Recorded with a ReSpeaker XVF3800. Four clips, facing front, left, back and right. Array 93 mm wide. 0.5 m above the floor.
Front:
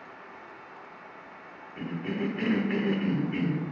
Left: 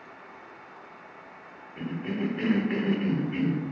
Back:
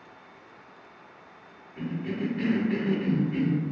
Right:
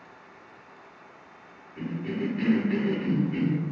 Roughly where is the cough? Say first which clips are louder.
Even, back 1 dB; ahead left.